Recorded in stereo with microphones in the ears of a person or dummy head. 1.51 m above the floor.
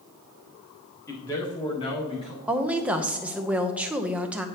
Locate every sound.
1.1 s a man speaking: 15° left (ahead or behind), 1.7 m; by 2.4 s 30° left (ahead or behind), 2.5 m
2.5 s a woman speaking: 5° right (ahead or behind), 0.7 m